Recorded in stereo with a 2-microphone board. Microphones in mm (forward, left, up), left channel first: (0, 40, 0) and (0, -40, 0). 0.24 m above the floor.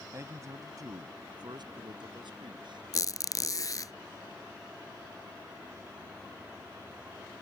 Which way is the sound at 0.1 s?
35° right (ahead or behind).